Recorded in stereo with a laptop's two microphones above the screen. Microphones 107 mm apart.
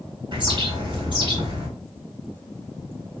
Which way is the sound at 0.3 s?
50° right (ahead or behind).